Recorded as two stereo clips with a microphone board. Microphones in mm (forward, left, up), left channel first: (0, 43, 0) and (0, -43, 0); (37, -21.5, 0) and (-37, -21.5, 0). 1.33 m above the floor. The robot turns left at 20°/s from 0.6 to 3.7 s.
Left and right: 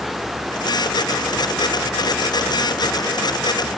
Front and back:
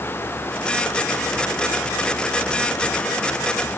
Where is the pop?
No pop in this recording.